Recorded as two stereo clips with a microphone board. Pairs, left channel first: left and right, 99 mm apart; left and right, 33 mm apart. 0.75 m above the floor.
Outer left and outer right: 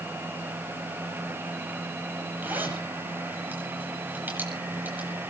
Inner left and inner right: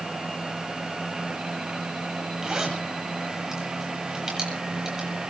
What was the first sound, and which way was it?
A zipper, 20° right (ahead or behind).